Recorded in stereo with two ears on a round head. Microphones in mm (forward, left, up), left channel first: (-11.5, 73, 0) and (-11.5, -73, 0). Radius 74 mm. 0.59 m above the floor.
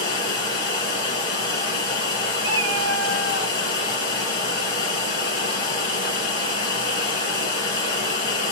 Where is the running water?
30° left (ahead or behind), 3.5 m.